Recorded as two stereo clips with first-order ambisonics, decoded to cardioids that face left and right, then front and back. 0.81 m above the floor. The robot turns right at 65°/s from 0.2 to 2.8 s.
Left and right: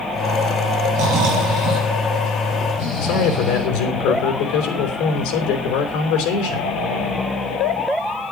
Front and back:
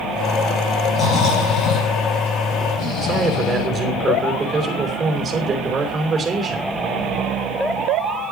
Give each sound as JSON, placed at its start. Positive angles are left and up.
{"t": 0.9, "sound": "snoring", "azimuth_deg": -75, "distance_m": 7.0}
{"t": 3.0, "sound": "a man speaking", "azimuth_deg": 100, "distance_m": 3.5}